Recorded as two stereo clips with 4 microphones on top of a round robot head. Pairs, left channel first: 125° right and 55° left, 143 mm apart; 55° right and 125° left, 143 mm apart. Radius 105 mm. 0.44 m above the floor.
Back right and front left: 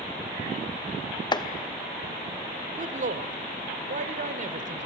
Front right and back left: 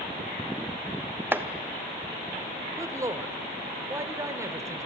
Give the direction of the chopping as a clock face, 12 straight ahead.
6 o'clock.